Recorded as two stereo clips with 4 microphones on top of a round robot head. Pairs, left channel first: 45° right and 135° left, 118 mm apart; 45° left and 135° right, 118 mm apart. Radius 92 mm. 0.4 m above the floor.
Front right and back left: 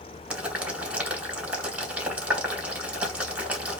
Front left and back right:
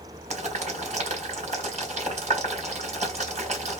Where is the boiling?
150° right, 3 m.